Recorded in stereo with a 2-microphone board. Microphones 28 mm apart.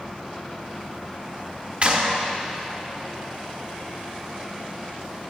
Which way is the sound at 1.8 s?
50° right (ahead or behind).